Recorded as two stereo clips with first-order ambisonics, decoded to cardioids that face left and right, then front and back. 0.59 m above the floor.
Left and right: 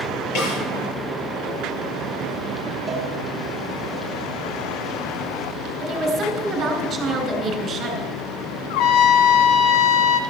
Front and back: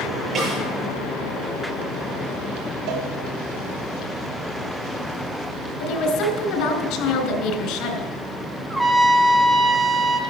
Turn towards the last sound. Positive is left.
turn(degrees=90)